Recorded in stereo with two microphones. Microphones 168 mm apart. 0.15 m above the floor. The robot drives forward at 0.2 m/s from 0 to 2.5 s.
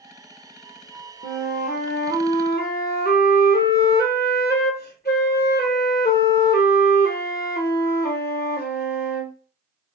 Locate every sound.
1.2 s a flute: 55° left (ahead or behind), 0.7 m; by 9.3 s 75° left (ahead or behind), 0.6 m